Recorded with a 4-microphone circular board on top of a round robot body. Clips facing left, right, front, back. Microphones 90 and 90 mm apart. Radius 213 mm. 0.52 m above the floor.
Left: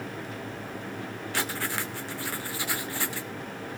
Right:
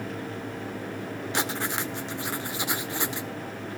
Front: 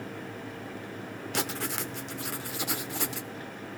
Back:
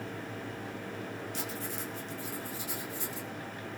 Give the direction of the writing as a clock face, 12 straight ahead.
1 o'clock.